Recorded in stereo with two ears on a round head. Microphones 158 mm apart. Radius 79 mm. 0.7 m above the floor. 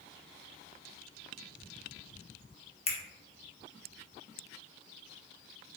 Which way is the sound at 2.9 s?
35° left (ahead or behind).